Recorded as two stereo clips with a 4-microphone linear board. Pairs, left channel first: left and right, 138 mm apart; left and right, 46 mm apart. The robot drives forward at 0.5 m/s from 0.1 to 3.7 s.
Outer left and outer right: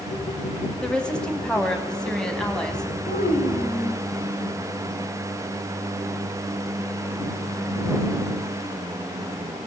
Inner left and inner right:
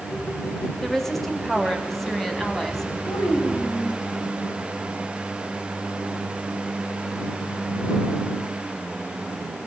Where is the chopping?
I don't hear chopping.